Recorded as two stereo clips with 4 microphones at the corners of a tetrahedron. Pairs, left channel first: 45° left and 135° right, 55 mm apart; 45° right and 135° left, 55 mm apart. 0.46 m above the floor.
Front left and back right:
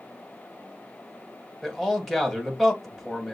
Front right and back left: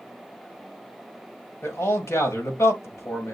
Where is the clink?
No clink in this recording.